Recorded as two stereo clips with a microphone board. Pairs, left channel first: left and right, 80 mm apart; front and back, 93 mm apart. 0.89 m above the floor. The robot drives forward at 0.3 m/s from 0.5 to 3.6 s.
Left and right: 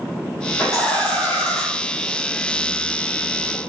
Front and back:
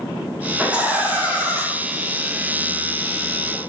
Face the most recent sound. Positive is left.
turn(degrees=145)